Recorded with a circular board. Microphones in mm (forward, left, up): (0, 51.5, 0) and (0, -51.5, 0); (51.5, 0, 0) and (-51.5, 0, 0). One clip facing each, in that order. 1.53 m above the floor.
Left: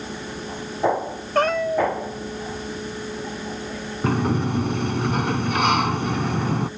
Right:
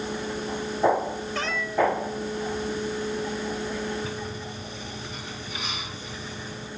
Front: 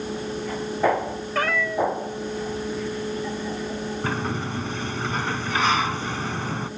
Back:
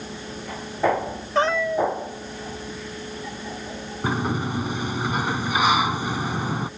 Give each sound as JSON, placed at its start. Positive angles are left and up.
{"t": 1.4, "sound": "a cat meowing", "azimuth_deg": 115}
{"t": 4.0, "sound": "a sliding door", "azimuth_deg": 105}